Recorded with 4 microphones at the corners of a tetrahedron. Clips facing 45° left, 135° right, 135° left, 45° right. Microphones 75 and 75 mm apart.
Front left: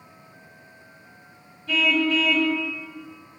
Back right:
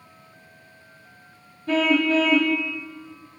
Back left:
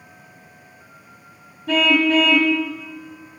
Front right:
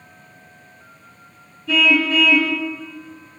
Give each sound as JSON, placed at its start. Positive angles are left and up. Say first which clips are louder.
{"t": 1.7, "sound": "a car horn", "louder": "back right 3 dB, back left 1 dB", "azimuth_deg": 175, "distance_m": 2.5}